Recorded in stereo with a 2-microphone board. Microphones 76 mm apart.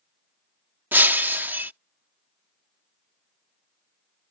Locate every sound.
0.9 s breaking glass: 25° right (ahead or behind)